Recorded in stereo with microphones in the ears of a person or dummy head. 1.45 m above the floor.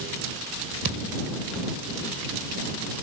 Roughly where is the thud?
Right.